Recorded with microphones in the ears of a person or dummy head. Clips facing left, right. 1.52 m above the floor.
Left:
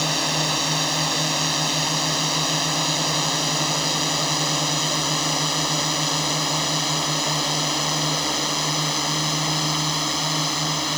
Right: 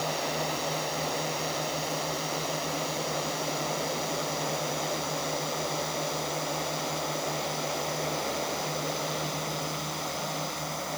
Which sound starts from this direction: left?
A drone, at 0.0 s.